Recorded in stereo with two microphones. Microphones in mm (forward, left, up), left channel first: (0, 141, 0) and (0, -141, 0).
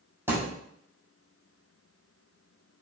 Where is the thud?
10° right (ahead or behind), 1.5 m.